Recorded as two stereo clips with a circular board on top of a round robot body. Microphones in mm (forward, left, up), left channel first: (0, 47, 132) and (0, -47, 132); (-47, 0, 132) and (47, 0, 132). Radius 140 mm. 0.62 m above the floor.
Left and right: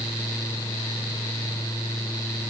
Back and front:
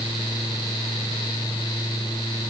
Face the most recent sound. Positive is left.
No sound to turn to.